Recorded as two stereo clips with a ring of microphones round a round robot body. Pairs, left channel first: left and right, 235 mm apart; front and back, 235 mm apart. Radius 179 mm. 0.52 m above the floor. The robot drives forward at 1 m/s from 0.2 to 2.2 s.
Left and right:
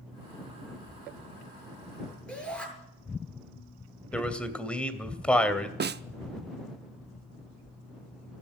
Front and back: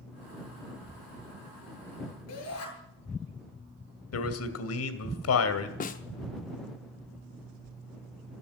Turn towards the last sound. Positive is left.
turn(degrees=-50)